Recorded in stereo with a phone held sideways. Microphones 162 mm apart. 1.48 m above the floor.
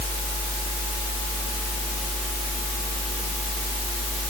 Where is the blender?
No blender in this recording.